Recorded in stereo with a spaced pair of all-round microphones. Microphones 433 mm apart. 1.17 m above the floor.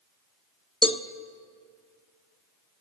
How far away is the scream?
No scream in this recording.